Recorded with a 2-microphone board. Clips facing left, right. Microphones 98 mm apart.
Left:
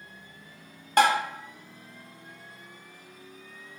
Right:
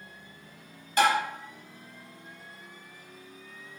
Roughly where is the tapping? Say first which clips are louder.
Left 2 dB; left.